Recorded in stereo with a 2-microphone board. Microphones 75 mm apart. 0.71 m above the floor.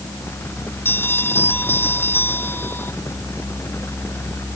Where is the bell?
30° left (ahead or behind).